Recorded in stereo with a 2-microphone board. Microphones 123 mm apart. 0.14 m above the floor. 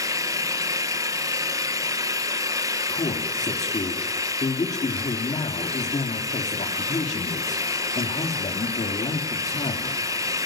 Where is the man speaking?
70° left (ahead or behind), 3.5 m.